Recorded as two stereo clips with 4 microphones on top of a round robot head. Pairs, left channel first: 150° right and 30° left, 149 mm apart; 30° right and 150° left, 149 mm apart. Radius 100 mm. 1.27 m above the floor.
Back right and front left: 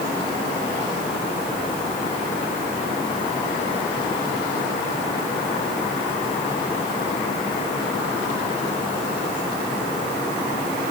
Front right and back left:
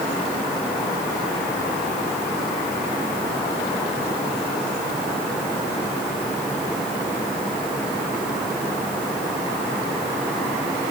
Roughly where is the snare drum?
No snare drum in this recording.